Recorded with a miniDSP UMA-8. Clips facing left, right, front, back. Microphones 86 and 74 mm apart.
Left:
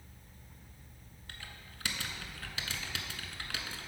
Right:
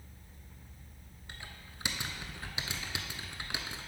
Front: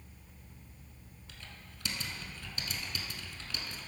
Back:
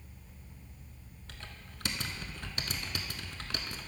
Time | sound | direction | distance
1.3 | typing on a keyboard | 160° right | 0.5 m